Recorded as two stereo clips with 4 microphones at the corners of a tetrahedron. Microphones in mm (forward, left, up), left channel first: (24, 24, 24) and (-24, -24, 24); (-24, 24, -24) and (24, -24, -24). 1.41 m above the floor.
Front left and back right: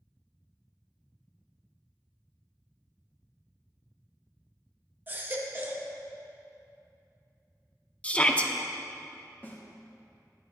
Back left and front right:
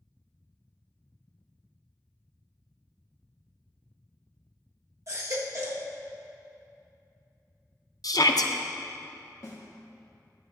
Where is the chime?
I don't hear a chime.